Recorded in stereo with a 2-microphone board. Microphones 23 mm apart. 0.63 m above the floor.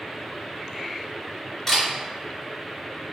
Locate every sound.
1.7 s a camera shutter: 15° left (ahead or behind), 1.7 m